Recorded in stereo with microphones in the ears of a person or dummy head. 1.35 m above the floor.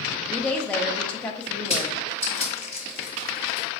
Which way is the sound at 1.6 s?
15° right (ahead or behind).